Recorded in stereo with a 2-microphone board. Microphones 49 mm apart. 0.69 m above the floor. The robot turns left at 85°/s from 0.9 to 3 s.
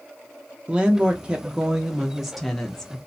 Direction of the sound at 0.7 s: 15° right (ahead or behind).